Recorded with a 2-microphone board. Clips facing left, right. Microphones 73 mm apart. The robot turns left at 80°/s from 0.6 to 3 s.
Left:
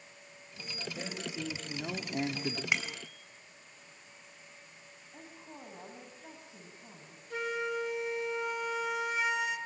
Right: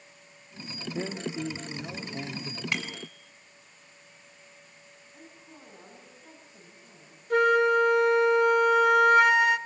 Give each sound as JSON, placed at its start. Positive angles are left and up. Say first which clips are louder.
{"t": 0.9, "sound": "a man speaking", "louder": "right 8 dB", "azimuth_deg": -120, "distance_m": 2.5}
{"t": 2.7, "sound": "a bicycle bell", "louder": "right 3 dB", "side_deg": 15, "distance_m": 4.5}
{"t": 5.1, "sound": "a woman speaking", "louder": "left 2 dB", "side_deg": 80, "distance_m": 8.5}
{"t": 7.3, "sound": "a flute", "louder": "right 14 dB", "side_deg": -55, "distance_m": 1.2}